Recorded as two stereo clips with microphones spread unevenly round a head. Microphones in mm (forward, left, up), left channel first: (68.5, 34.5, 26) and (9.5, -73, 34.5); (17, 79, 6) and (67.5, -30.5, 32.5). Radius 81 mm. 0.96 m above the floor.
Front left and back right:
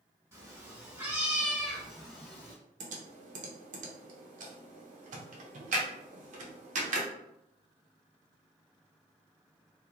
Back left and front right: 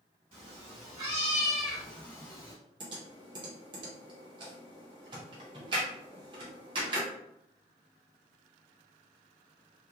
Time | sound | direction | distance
0.3 | a cat meowing | 65° right | 1.2 m
2.8 | typing on a keyboard | 125° right | 0.6 m